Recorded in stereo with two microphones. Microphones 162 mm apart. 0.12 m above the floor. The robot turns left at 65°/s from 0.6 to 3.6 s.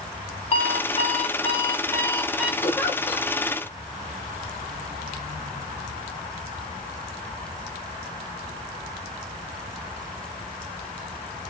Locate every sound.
0.5 s an alarm clock: 115° left, 0.5 m; by 2.5 s 10° right, 0.5 m
2.6 s a giggle: 20° left (ahead or behind), 0.8 m; by 3.3 s 5° left (ahead or behind), 0.8 m